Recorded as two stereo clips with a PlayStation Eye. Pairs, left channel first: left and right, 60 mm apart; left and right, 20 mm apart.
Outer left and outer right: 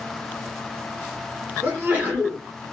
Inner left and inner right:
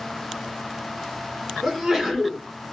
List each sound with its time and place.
1.6 s a sneeze: 30° right (ahead or behind), 2.5 m